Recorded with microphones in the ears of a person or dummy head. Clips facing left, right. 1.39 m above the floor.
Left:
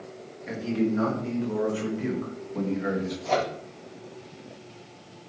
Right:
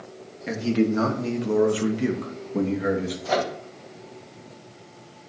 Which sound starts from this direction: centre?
A microwave, at 3.2 s.